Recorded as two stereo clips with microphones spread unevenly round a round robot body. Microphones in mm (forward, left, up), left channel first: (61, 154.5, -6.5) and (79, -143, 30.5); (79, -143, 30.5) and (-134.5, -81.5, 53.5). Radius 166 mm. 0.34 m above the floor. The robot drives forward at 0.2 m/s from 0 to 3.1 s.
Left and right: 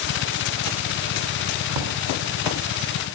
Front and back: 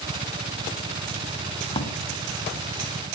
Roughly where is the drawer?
Right.